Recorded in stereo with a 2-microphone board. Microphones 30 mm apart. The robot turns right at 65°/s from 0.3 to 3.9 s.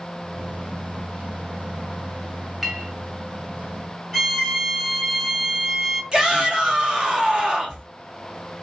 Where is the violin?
5° left (ahead or behind), 1.8 m.